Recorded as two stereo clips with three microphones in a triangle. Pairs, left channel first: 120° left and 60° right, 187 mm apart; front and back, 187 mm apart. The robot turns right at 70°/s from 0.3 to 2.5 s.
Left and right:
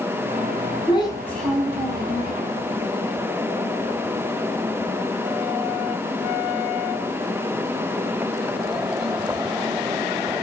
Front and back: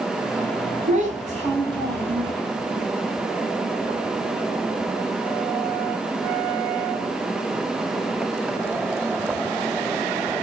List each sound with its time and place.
0.9 s a child speaking: 165° left, 1.0 m; by 2.3 s 90° right, 1.0 m